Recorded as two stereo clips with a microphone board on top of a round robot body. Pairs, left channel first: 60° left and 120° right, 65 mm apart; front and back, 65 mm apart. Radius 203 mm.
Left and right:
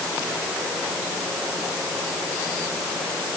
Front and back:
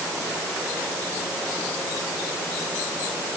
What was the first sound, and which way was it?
Only background noise.